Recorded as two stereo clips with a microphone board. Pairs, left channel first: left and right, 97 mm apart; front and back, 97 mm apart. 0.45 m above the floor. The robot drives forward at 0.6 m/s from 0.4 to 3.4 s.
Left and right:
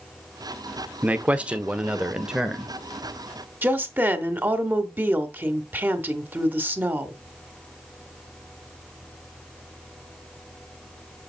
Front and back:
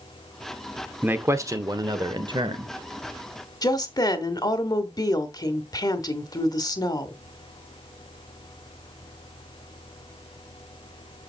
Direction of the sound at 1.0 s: 140° right.